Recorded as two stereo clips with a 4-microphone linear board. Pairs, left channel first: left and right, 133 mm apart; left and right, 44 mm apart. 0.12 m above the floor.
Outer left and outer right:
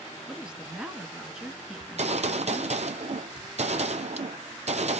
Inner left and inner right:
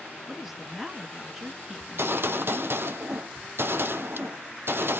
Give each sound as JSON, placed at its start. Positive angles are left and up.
{"t": 0.3, "sound": "a woman speaking", "side_deg": -5, "distance_m": 1.1}
{"t": 1.8, "sound": "a gunshot", "side_deg": -55, "distance_m": 0.6}